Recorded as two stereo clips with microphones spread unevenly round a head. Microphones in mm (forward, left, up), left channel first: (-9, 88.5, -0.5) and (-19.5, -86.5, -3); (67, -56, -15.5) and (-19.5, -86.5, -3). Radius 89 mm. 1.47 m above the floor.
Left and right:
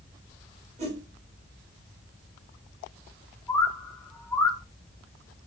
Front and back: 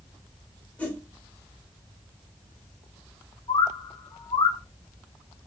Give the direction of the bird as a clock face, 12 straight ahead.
12 o'clock.